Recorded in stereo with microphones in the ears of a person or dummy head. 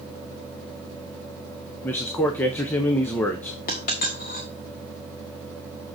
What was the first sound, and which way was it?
A man speaking, 10° left (ahead or behind).